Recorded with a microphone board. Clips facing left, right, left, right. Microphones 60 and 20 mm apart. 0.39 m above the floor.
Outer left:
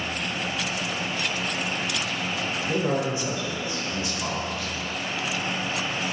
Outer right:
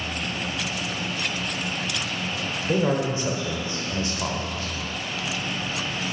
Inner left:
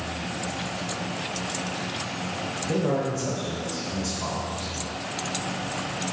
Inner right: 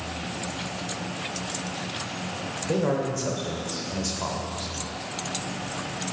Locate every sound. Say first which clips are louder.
2.7 s a man speaking: outer right 3 dB, inner right 1 dB; 40° right (ahead or behind), 1.2 m